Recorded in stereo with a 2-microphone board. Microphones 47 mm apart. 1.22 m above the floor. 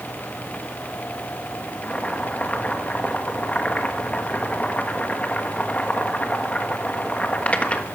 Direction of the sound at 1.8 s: 30° left (ahead or behind).